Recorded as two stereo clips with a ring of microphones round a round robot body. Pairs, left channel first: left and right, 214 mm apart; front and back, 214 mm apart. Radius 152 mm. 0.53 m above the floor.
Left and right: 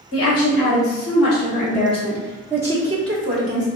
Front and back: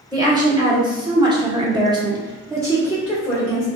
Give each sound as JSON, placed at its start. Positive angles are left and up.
{"t": 0.1, "sound": "a woman speaking", "azimuth_deg": 110, "distance_m": 1.6}